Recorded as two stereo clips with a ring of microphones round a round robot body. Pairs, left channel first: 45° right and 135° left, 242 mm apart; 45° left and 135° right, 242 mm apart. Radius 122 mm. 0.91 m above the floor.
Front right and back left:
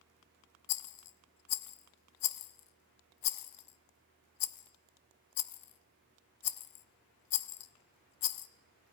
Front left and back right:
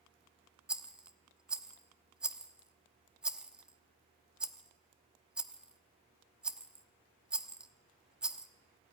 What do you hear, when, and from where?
0.7 s a rattle: 50° right, 0.9 m